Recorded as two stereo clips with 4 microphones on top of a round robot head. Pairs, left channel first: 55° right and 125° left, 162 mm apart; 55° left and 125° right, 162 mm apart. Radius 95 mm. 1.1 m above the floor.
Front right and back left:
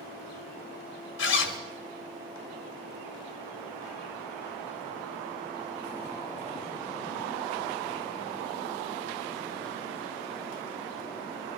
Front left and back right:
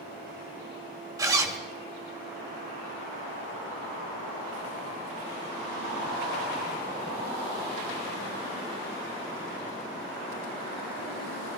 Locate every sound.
1.2 s a zipper: 55° right, 1.6 m